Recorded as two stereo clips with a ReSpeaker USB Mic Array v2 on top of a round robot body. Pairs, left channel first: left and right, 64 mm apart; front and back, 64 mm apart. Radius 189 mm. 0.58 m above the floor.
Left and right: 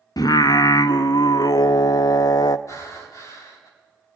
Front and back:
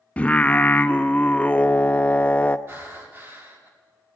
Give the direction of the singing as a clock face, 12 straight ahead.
10 o'clock.